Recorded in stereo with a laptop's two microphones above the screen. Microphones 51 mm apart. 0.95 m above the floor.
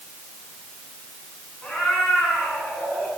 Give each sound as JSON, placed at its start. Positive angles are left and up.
{"t": 1.6, "sound": "a cat meowing", "side_deg": 10, "distance_m": 6.0}